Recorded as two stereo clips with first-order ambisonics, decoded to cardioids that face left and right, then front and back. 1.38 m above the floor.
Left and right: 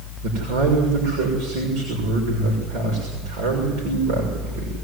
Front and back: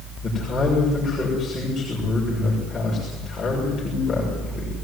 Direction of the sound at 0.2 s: 80° right.